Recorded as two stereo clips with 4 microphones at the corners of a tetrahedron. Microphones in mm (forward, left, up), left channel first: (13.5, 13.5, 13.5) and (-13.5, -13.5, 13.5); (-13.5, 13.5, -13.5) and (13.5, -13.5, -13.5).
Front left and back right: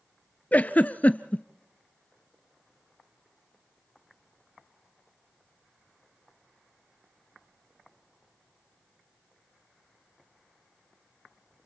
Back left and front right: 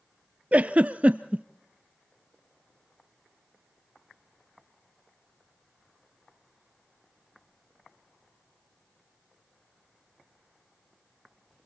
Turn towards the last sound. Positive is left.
turn(degrees=0)